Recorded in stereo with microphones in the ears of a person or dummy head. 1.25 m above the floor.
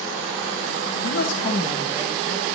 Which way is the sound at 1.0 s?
75° left (ahead or behind).